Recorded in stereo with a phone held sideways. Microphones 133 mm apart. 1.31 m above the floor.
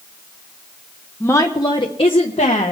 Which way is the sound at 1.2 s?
15° left (ahead or behind).